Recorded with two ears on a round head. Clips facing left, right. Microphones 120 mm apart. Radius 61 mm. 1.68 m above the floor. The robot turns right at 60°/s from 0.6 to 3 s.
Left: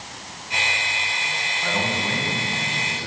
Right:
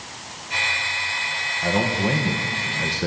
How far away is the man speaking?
About 2 m.